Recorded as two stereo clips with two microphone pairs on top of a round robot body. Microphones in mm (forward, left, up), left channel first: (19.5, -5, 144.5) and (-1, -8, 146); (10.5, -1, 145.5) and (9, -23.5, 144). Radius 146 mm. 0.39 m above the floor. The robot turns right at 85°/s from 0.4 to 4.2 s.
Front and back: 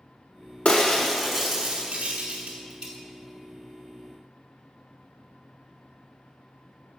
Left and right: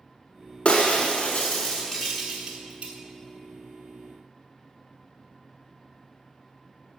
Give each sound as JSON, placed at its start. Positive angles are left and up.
{"t": 0.7, "sound": "breaking glass", "azimuth_deg": 45, "distance_m": 0.7}